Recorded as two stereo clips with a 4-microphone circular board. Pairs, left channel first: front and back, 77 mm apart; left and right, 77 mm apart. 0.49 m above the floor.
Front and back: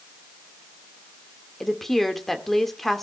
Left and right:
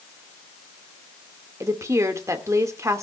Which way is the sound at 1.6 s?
85° right.